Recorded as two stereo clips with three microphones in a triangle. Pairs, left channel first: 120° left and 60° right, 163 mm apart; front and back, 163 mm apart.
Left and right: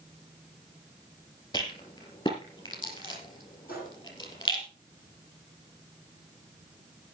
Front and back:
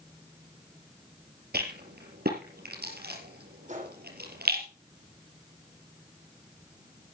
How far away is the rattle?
About 5 m.